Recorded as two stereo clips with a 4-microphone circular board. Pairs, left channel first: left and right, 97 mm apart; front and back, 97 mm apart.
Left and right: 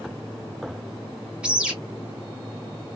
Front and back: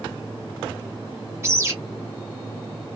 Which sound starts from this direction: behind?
A bird, at 1.4 s.